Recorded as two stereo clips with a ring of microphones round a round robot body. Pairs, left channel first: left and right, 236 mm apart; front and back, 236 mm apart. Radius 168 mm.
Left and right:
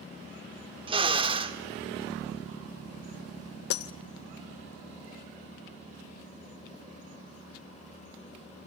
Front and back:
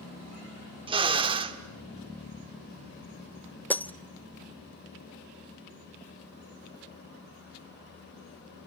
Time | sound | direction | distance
0.9 | a drill | 135° right | 1.5 m
3.7 | breaking glass | 85° left | 1.0 m